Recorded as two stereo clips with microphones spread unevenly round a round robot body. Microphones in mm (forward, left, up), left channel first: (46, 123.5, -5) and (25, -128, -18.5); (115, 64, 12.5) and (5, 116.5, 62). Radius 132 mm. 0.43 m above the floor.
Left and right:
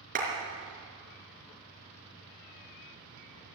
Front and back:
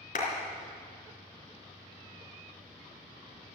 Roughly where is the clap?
Ahead right.